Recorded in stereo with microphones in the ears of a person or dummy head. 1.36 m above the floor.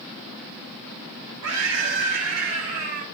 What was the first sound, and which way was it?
A scream, 70° right (ahead or behind).